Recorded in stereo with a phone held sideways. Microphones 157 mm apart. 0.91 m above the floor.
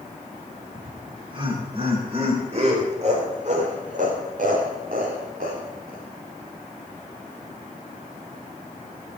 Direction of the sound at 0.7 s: 25° right (ahead or behind).